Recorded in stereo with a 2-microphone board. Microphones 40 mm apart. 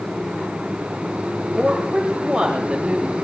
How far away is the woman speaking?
About 2.5 m.